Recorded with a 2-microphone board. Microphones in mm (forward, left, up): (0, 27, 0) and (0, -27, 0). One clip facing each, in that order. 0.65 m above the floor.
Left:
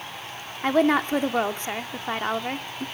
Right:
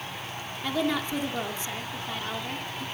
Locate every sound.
0.6 s a woman speaking: 45° left (ahead or behind), 1.1 m